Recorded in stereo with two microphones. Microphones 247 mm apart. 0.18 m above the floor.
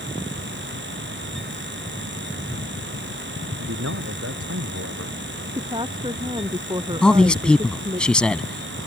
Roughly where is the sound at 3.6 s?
Right.